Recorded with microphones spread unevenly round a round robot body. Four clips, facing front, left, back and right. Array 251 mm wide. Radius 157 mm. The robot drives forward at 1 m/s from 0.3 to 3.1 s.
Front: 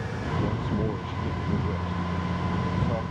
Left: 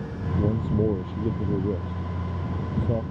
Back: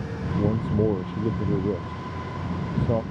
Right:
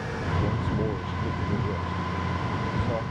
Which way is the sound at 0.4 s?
140° left.